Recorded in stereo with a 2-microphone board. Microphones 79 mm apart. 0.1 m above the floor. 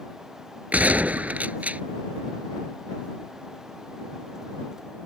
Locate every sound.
0.7 s a gunshot: 20° right (ahead or behind)